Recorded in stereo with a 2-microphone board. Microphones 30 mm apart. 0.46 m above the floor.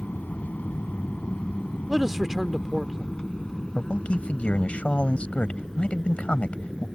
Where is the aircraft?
65° left (ahead or behind); by 7.0 s centre (ahead or behind).